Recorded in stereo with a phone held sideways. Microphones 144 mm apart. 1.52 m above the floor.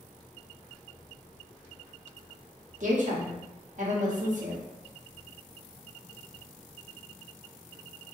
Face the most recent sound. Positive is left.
turn(degrees=-60)  # may be behind; listen again after turning